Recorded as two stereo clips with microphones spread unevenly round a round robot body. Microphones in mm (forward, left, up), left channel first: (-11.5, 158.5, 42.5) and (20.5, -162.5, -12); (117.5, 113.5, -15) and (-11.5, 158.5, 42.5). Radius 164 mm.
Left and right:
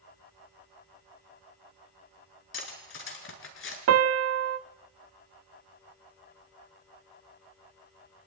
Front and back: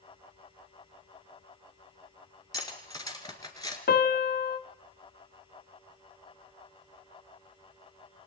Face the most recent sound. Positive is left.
turn(degrees=-35)